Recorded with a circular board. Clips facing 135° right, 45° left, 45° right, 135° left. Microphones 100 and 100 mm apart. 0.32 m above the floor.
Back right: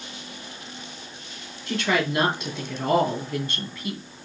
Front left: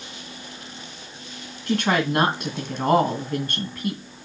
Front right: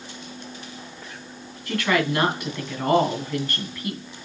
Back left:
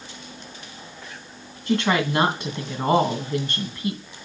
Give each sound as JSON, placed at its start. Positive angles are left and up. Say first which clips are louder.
{"t": 1.7, "sound": "a woman speaking", "louder": "front left 3 dB, back left 1 dB", "azimuth_deg": 75, "distance_m": 2.5}